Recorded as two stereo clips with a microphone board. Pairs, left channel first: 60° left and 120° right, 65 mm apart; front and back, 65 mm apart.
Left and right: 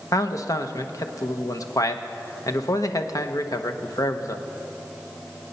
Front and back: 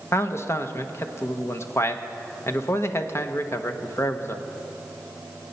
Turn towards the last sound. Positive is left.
turn(degrees=40)